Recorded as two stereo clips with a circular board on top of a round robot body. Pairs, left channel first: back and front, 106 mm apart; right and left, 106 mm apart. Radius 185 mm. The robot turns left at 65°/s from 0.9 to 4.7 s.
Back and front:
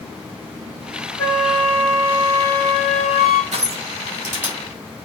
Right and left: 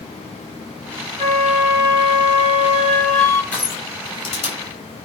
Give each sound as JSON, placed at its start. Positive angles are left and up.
{"t": 1.2, "sound": "a flute", "azimuth_deg": 110, "distance_m": 2.5}
{"t": 3.5, "sound": "crushing", "azimuth_deg": -10, "distance_m": 4.5}